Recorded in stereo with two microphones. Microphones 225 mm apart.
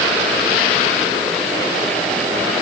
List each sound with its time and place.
Only background noise.